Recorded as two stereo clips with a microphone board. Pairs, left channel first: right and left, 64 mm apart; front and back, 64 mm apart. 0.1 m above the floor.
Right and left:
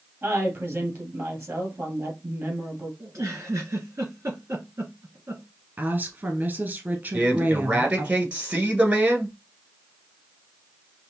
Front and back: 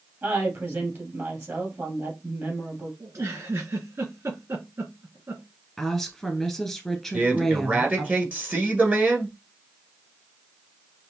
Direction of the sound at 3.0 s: 135° left.